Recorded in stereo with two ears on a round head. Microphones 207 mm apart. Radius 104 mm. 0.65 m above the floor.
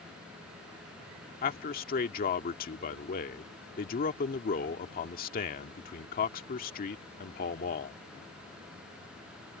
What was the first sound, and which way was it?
A man speaking, 40° left (ahead or behind).